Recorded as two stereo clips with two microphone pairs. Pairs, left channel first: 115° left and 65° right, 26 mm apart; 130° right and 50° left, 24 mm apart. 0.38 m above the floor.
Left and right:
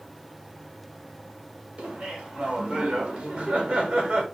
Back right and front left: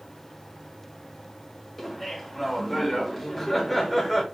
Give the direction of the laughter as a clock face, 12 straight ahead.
2 o'clock.